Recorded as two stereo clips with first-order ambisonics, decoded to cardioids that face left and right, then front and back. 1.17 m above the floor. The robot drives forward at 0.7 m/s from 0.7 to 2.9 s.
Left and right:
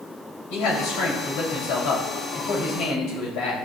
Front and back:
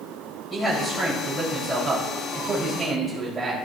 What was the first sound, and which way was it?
A man speaking, 80° left.